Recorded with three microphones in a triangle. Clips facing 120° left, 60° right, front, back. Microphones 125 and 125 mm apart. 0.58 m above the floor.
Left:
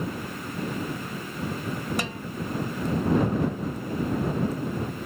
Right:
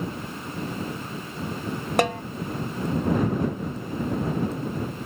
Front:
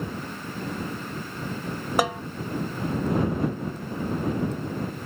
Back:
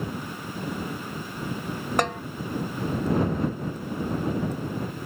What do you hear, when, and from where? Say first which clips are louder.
2.0 s a snare drum: right 10 dB, front 2 dB; 85° right